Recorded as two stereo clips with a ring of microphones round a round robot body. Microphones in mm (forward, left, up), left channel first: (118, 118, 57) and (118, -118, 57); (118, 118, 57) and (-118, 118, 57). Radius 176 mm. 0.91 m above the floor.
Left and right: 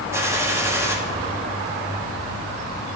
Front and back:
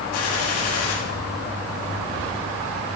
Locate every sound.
0.1 s a gunshot: 10° right, 1.7 m